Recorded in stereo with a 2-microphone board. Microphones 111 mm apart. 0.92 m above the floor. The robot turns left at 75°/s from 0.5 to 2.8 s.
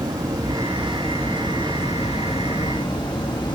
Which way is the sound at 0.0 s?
145° right.